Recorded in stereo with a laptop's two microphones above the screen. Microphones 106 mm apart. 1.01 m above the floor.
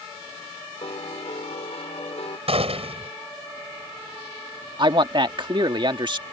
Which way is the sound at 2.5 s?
70° right (ahead or behind).